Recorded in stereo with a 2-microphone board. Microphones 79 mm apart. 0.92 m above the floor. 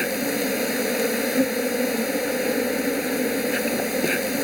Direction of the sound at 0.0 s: Centre (ahead or behind).